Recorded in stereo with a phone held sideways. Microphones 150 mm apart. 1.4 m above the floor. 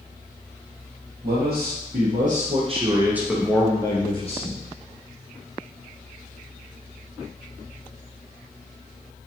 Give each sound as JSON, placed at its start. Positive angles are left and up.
{"t": 1.2, "sound": "a man speaking", "side_deg": -75, "distance_m": 1.2}